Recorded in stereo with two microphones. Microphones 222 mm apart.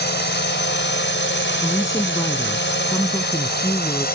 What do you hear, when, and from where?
0.0 s a drone: 50° left (ahead or behind); by 4.2 s 45° left (ahead or behind)
1.6 s a woman speaking: 15° left (ahead or behind)